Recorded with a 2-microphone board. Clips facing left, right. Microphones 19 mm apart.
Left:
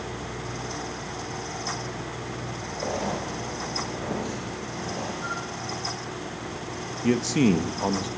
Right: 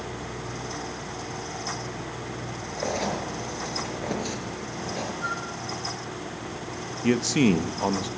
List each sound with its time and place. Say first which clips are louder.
2.8 s writing: right 1 dB; 45° right (ahead or behind), 6 m
5.2 s a flute: right 1 dB; 30° right (ahead or behind), 6 m
7.0 s a man speaking: even; 15° right (ahead or behind), 1.0 m